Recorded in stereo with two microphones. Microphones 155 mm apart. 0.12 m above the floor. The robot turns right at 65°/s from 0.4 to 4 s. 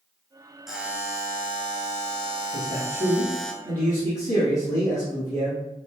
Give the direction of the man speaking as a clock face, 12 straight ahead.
2 o'clock.